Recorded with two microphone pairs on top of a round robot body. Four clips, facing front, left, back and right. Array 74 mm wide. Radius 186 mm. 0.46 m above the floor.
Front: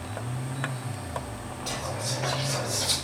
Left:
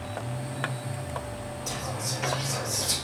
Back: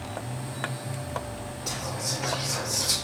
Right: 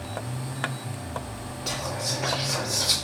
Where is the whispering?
85° right, 2 m.